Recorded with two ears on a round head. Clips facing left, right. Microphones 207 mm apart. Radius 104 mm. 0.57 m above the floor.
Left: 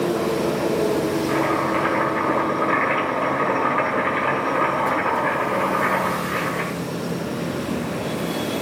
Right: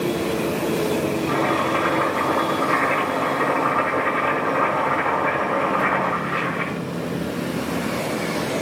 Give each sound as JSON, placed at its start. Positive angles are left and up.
{"t": 1.3, "sound": "chopping", "side_deg": 30, "distance_m": 5.5}